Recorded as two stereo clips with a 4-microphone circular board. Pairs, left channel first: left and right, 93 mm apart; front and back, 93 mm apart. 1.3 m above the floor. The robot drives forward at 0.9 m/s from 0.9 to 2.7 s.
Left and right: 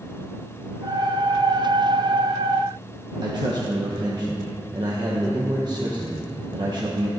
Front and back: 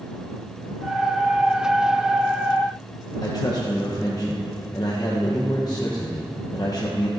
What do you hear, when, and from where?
3.2 s a man speaking: 45° right, 0.9 m